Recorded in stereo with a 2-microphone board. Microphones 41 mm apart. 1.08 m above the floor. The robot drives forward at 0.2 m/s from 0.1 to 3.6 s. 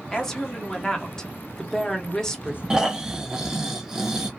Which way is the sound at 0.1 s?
10° left (ahead or behind).